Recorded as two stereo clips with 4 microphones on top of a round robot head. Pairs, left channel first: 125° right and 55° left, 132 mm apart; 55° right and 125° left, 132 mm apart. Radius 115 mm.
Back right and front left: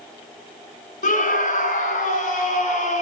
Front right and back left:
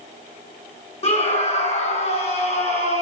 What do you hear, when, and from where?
1.0 s a scream: 100° right, 7 m; by 3.0 s 90° right, 8 m